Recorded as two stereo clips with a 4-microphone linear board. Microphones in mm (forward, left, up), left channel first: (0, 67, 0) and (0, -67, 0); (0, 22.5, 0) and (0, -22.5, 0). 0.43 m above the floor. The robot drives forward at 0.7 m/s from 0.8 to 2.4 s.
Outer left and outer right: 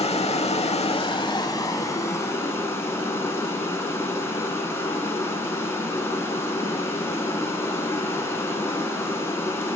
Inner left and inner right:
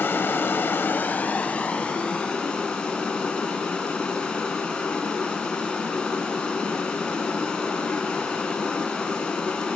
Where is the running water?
50° left (ahead or behind), 0.7 m; by 9.8 s 20° left (ahead or behind), 1.7 m.